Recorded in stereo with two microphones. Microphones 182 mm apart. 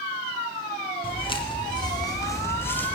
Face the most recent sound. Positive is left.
turn(degrees=5)  # may be behind; listen again after turning